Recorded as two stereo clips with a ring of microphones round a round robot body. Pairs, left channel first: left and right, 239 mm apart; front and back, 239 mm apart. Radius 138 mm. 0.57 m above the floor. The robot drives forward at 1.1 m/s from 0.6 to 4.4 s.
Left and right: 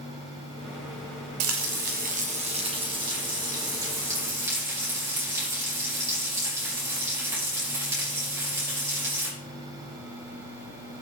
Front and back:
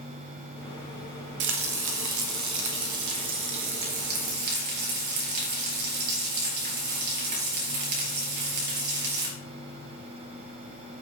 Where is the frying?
125° right, 0.9 m; by 9.3 s 170° right, 4 m.